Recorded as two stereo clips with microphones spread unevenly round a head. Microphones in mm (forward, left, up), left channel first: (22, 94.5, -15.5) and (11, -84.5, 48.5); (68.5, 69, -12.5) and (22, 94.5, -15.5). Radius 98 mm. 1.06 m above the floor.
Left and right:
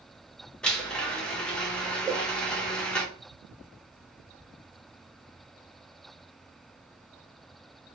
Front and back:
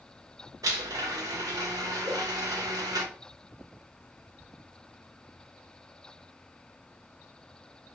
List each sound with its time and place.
0.6 s a blender: 170° left, 0.6 m
2.0 s a whoosh: 165° right, 1.2 m